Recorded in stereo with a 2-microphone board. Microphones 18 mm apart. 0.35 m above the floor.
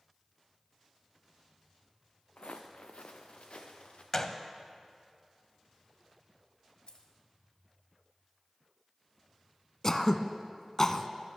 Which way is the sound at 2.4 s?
75° left (ahead or behind).